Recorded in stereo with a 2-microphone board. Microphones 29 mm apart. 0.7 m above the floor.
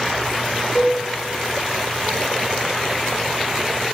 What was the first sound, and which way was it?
A cowbell, 5° left (ahead or behind).